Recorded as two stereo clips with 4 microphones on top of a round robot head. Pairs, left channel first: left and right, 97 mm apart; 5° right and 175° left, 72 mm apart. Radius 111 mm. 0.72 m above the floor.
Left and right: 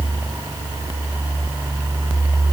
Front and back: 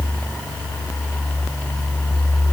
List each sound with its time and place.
Only background noise.